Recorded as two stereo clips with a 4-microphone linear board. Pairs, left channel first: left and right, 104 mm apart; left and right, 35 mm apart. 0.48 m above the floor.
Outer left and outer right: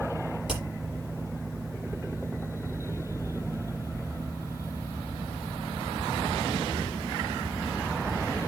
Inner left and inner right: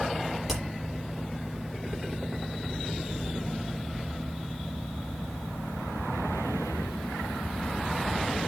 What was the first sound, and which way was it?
Hammering, 5° right (ahead or behind).